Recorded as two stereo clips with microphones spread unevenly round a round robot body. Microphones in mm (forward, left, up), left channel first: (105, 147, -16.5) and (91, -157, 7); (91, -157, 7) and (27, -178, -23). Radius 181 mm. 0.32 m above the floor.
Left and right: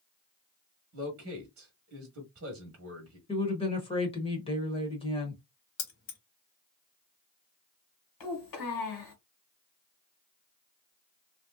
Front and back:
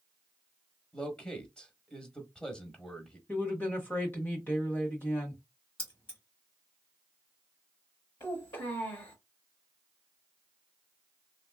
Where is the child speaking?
85° left, 1.6 m.